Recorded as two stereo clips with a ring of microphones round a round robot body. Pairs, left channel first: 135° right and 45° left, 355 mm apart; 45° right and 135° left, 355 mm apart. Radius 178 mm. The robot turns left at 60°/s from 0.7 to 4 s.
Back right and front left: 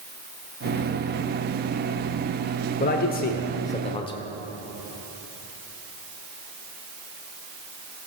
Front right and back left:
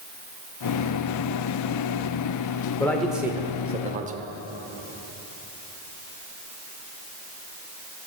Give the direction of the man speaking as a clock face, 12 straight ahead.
4 o'clock.